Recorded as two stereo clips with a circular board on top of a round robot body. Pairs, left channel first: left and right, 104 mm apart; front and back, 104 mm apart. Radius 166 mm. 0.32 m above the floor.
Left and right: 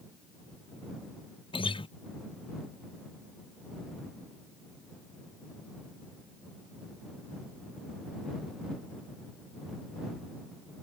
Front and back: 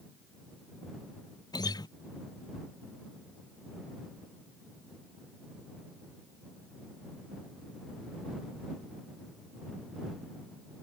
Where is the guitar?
50° left.